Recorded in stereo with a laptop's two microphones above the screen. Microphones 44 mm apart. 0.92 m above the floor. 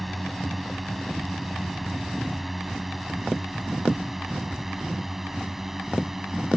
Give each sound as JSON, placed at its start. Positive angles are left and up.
{"t": 0.0, "sound": "a drone", "side_deg": 0}